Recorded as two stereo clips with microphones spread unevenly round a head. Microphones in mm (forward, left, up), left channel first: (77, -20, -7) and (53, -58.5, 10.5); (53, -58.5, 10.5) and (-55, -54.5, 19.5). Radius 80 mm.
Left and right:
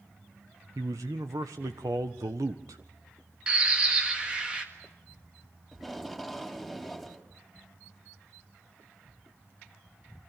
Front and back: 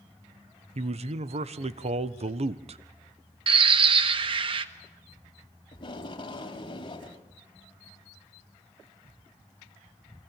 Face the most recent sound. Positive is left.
turn(degrees=-45)